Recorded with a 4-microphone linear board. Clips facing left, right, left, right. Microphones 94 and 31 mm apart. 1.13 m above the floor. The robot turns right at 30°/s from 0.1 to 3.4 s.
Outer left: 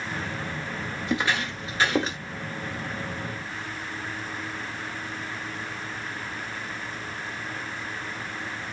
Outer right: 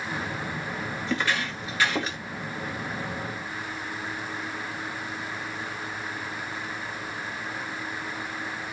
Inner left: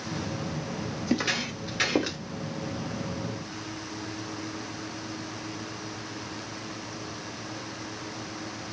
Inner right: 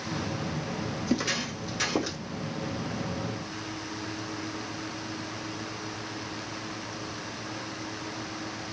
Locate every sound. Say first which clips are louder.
1.1 s footsteps: outer left 2 dB, inner left 2 dB; 10° left (ahead or behind), 1.3 m; by 2.2 s 25° left (ahead or behind), 1.2 m